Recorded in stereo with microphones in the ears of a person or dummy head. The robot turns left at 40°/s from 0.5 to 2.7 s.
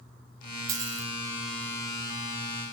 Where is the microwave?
I don't hear a microwave.